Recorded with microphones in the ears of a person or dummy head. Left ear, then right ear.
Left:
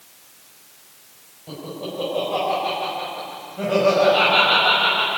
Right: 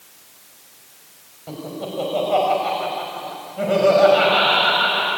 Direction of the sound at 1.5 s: 45° right (ahead or behind).